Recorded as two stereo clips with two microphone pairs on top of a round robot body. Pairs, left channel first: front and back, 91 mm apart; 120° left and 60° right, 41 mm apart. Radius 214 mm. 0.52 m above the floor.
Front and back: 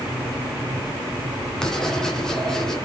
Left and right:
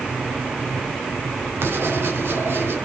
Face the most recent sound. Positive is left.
turn(degrees=-80)